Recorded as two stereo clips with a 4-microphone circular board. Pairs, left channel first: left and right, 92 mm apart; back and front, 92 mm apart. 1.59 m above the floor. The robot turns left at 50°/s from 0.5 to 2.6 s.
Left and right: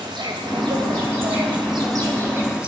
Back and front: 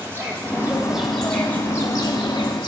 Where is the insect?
60° right, 2.5 m; by 2.7 s 165° right, 2.5 m.